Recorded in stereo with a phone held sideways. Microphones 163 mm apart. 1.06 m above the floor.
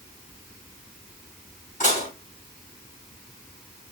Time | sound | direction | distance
1.8 | dishes clattering | 50° left (ahead or behind) | 5 m